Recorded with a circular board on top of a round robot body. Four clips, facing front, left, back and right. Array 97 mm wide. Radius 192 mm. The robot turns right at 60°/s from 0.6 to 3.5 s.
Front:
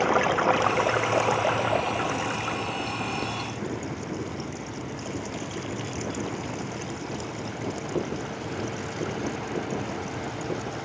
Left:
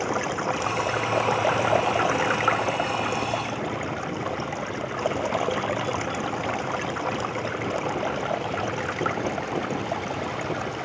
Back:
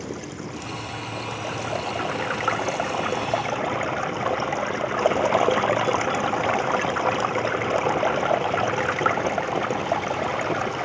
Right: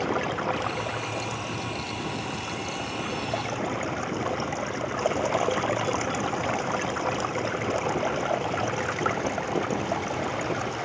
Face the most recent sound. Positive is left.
turn(degrees=-175)